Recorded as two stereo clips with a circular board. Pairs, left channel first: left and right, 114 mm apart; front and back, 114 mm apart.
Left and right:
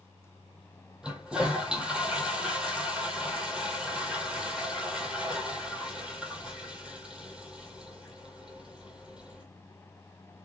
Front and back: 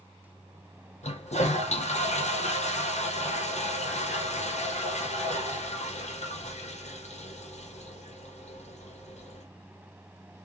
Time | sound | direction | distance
1.0 | a toilet flushing | 5° right | 1.0 m